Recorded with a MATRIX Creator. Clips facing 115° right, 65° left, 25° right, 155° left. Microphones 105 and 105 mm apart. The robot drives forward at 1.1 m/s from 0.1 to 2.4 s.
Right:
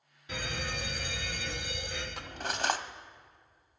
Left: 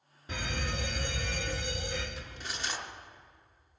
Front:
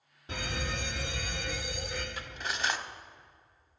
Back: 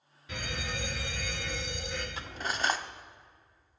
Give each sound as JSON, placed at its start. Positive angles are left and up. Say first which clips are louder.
{"t": 0.3, "sound": "a fire alarm", "louder": "left 1 dB, front 2 dB", "azimuth_deg": 25, "distance_m": 3.0}
{"t": 2.2, "sound": "cutlery clinking", "louder": "right 6 dB, back 4 dB", "azimuth_deg": -140, "distance_m": 0.6}